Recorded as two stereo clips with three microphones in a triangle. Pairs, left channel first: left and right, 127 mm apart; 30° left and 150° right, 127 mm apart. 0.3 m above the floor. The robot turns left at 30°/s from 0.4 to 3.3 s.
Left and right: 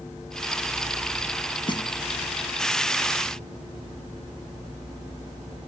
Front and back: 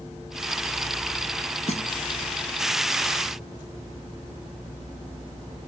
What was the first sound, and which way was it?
A snare drum, 45° left.